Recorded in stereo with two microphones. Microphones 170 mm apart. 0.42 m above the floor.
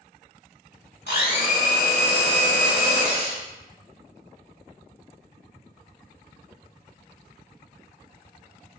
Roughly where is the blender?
Left.